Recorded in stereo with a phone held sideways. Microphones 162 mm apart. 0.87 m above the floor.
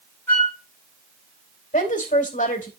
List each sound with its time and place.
0.3 s a flute: 10° left (ahead or behind), 7.5 m
1.7 s a woman speaking: 55° left (ahead or behind), 3.5 m